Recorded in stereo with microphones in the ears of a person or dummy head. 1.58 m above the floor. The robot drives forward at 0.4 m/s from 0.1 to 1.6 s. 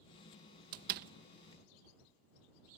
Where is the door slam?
50° right (ahead or behind); by 1.1 s 55° right (ahead or behind).